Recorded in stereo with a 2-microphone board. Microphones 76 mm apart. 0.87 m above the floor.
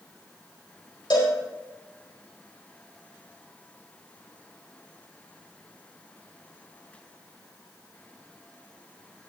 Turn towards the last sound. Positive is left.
turn(degrees=80)